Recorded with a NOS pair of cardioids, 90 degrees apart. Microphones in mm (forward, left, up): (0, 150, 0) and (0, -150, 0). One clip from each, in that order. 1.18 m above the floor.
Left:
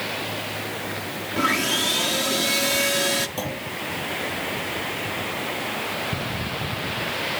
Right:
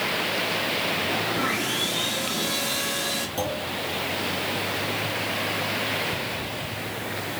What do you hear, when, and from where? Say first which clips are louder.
1.4 s sawing: left 3 dB; 30° left, 1.8 m
3.4 s a clunk: right 2 dB; 10° left, 7 m